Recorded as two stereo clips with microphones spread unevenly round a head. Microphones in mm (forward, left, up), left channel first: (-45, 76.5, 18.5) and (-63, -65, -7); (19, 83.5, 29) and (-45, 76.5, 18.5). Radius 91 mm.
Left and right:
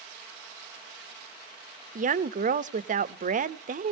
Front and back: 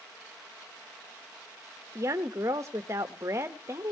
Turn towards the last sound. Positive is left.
turn(degrees=-120)